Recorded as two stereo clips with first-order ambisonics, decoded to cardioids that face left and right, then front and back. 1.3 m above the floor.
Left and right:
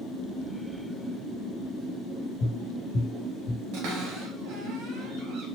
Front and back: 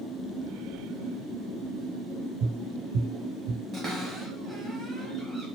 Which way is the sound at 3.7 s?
115° right.